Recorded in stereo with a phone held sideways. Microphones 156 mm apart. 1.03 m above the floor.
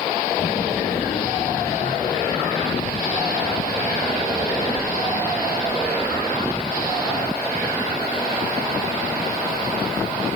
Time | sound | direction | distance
0.4 | a child speaking | 50° left (ahead or behind) | 1.0 m